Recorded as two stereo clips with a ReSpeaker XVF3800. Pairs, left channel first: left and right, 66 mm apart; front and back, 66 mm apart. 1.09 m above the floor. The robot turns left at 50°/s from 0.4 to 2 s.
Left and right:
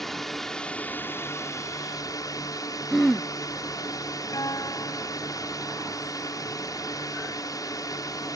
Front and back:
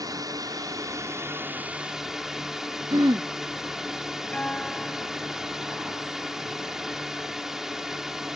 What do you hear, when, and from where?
0.0 s a drone: 175° left; by 8.3 s 95° left
2.9 s throat clearing: 175° left
4.3 s a guitar: 70° left